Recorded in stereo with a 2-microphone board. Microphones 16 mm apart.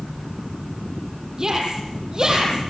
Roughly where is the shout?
Right.